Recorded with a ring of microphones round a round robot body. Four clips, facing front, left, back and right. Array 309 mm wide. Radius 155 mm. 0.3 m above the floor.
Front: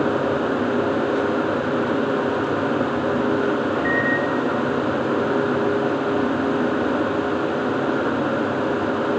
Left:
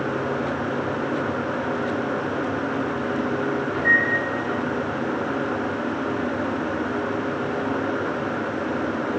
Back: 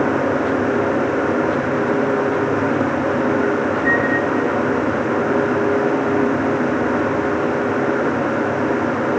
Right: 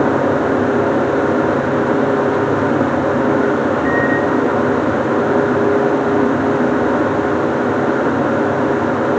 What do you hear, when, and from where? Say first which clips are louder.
3.7 s a microwave: right 7 dB, back 3 dB; 145° left, 5.5 m